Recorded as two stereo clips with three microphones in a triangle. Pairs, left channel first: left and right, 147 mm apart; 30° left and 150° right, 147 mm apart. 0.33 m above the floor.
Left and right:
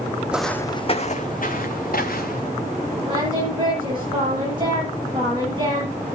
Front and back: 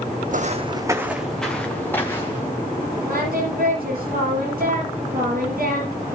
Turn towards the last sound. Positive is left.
turn(degrees=-150)